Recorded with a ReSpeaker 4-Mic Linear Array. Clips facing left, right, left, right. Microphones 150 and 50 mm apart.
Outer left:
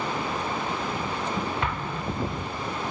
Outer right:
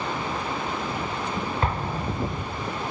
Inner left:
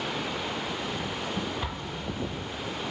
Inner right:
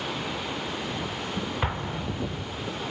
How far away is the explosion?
About 0.6 m.